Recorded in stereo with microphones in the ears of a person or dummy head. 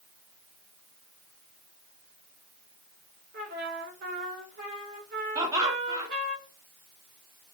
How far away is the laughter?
About 0.7 m.